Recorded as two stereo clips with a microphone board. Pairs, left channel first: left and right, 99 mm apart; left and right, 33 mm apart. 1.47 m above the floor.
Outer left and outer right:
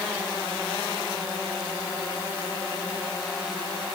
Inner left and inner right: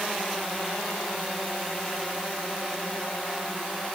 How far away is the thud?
I don't hear a thud.